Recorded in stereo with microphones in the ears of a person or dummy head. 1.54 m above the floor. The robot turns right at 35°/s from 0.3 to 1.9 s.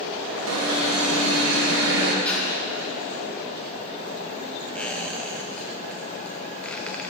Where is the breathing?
10° left (ahead or behind), 3 m.